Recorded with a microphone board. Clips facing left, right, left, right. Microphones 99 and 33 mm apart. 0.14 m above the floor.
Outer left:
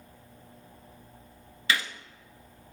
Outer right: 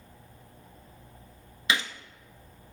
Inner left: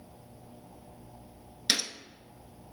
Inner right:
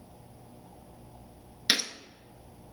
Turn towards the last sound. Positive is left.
turn(degrees=-20)  # may be behind; listen again after turning